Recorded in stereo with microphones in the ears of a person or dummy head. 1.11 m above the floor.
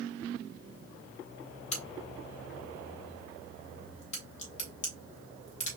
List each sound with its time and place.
1.7 s a crack: 45° left (ahead or behind), 1.9 m